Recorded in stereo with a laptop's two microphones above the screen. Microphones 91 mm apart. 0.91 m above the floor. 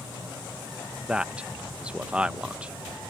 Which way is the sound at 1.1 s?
15° right (ahead or behind).